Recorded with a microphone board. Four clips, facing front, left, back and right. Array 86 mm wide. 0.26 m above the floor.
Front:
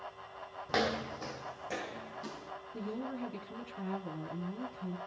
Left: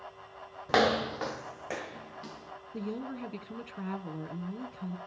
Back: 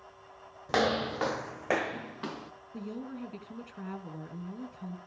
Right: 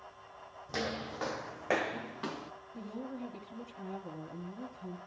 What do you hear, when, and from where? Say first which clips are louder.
0.7 s footsteps: left 12 dB, back 5 dB; 100° left, 0.6 m; by 2.5 s 140° right, 1.9 m
2.7 s a woman speaking: left 5 dB, even; 100° left, 3 m